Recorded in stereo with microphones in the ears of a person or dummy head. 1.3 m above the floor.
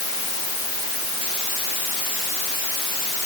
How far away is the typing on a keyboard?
I don't hear typing on a keyboard.